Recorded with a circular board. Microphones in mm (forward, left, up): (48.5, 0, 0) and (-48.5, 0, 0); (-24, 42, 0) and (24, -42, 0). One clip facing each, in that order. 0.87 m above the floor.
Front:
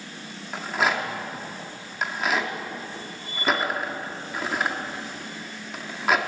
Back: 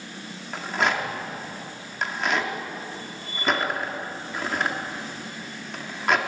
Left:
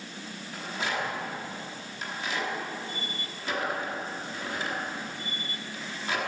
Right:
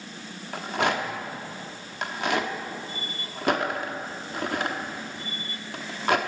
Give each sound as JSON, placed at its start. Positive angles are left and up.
{"t": 0.5, "sound": "a rattle", "azimuth_deg": -85, "distance_m": 1.1}